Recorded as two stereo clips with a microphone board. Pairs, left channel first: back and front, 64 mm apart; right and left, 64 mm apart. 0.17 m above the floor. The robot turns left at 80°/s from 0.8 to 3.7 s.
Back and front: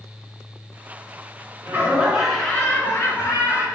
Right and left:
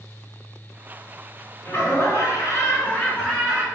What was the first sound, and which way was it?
Laughter, 45° right.